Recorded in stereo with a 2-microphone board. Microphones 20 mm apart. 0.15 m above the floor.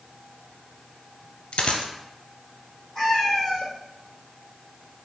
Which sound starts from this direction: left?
A dropped coin, at 1.5 s.